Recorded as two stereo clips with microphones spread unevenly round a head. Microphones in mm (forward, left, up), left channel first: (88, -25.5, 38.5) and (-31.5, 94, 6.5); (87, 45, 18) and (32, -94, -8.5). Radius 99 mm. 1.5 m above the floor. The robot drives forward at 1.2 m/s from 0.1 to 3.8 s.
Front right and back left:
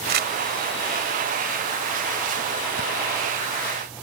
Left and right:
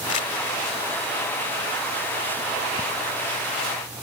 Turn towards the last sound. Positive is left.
turn(degrees=155)